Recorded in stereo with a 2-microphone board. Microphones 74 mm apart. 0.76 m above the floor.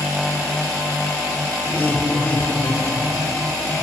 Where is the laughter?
30° left (ahead or behind), 2.0 m.